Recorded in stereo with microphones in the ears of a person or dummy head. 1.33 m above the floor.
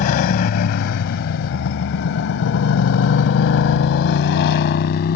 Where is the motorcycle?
50° left (ahead or behind); by 5.2 s 55° left (ahead or behind).